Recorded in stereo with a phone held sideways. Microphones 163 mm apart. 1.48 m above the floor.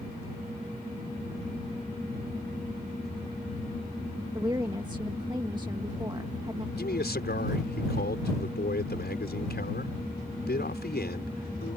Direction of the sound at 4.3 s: 25° right (ahead or behind).